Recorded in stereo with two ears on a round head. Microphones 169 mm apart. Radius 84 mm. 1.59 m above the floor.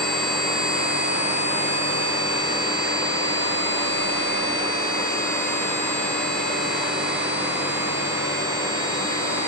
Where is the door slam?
I don't hear a door slam.